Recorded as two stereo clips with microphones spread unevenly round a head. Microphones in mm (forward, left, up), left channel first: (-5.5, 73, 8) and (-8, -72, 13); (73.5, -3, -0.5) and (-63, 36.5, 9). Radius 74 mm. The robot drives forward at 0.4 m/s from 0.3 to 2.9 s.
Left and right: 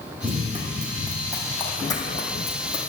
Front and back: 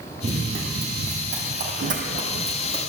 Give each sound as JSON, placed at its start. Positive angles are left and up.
{"t": 0.2, "sound": "running footsteps", "azimuth_deg": -160, "distance_m": 2.5}